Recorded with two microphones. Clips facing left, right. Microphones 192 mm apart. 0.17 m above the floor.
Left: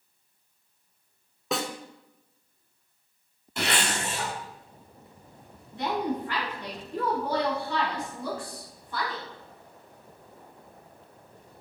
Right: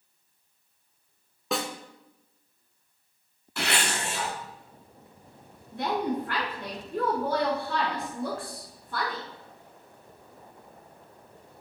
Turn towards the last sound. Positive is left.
turn(degrees=-50)  # may be behind; listen again after turning